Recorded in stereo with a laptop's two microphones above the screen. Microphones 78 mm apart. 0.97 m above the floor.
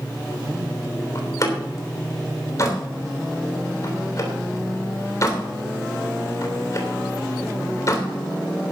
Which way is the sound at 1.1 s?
45° left (ahead or behind).